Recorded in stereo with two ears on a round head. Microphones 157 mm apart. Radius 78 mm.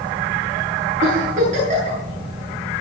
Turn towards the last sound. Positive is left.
turn(degrees=-45)  # may be behind; listen again after turning